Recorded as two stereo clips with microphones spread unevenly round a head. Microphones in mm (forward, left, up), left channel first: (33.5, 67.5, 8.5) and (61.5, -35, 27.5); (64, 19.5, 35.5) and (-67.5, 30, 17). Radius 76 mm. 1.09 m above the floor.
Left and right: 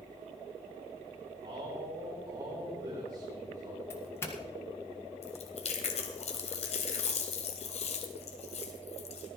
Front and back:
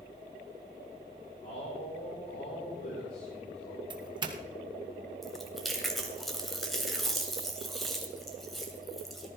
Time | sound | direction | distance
1.4 | a man speaking | 20° right | 4.5 m
3.9 | a doorbell | 155° left | 1.6 m
5.2 | chewing | 85° left | 2.5 m